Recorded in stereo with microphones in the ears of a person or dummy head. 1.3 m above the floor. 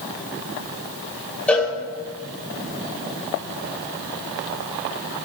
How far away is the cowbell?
About 1.9 m.